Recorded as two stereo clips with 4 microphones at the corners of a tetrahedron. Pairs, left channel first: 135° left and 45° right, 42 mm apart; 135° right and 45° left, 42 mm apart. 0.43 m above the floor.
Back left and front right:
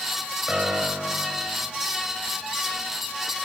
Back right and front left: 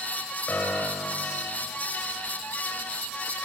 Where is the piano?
105° right, 2.0 m.